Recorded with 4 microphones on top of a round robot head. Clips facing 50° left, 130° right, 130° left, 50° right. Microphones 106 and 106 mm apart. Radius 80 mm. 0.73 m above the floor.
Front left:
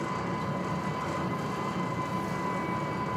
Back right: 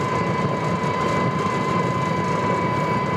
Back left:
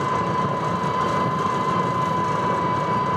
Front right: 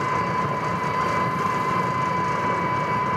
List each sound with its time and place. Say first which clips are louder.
0.0 s an engine running: back right 10 dB, back left 1 dB; 155° right, 1.3 m